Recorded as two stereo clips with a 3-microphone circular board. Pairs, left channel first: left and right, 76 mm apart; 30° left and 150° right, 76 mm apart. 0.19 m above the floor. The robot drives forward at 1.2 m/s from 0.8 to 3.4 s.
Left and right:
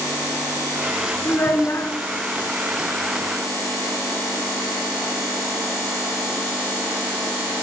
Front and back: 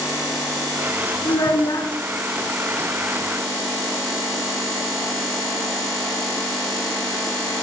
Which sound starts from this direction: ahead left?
A child speaking, at 1.2 s.